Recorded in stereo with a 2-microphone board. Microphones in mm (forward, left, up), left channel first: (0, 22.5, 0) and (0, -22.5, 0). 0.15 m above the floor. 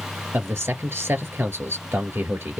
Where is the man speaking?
60° right (ahead or behind), 3 m.